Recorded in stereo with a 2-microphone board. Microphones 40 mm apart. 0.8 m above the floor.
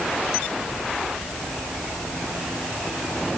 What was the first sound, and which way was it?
Only background noise.